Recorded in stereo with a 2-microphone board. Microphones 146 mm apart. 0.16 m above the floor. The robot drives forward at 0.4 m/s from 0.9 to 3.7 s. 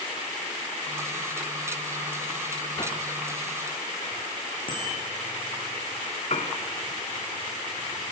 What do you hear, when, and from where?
2.8 s a whoosh: 30° left (ahead or behind), 3 m; by 3.0 s 35° left (ahead or behind), 2.5 m
4.7 s a bicycle bell: 85° left, 8 m
6.3 s a piano: 50° left (ahead or behind), 1.4 m